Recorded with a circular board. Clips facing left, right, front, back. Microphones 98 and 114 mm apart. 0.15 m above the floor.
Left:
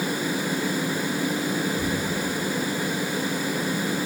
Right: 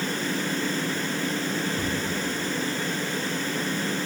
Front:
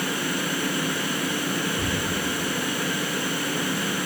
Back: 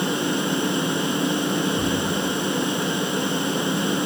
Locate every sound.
1.8 s a thud: 130° right, 6 m